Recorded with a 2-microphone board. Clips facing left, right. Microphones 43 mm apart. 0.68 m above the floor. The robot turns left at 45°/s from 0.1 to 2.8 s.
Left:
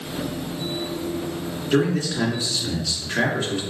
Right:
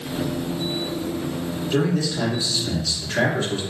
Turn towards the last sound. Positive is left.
turn(degrees=20)